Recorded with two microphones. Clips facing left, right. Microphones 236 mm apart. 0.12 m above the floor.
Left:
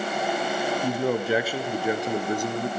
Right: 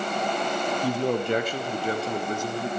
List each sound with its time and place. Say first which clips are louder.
0.8 s a man speaking: even; 5° right (ahead or behind), 1.1 m; by 2.7 s 20° left (ahead or behind), 1.8 m